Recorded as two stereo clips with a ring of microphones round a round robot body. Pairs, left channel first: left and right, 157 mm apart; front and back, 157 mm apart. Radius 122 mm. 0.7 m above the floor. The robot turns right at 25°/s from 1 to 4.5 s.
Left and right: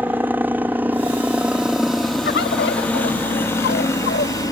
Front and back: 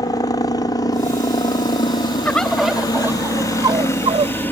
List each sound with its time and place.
0.0 s a helicopter: 25° right; by 4.5 s 60° left
2.2 s a bird: 80° left; by 4.3 s 135° left